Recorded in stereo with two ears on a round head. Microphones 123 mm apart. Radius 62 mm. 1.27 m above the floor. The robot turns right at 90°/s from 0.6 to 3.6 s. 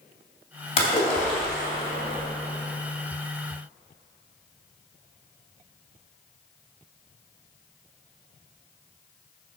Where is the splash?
125° left, 2.5 m; by 2.3 s 100° right, 2.5 m.